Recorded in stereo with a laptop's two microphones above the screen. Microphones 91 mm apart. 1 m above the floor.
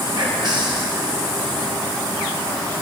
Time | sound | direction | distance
0.1 | whispering | 50° right (ahead or behind) | 1.1 m